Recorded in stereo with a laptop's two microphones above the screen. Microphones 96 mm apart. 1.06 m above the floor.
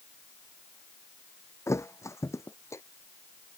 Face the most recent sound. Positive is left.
turn(degrees=35)  # may be behind; listen again after turning